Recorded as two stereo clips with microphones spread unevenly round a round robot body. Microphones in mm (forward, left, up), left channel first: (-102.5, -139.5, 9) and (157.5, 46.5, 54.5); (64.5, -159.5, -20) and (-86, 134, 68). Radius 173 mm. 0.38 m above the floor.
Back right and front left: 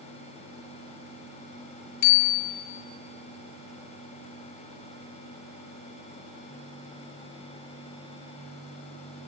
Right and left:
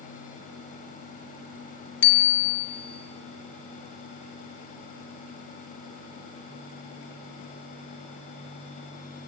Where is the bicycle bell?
120° right, 3 m.